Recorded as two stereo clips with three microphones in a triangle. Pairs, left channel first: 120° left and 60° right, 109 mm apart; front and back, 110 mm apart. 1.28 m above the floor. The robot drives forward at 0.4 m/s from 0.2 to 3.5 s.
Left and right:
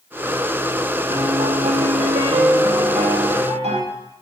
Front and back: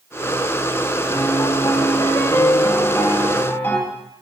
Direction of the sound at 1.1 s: 50° right.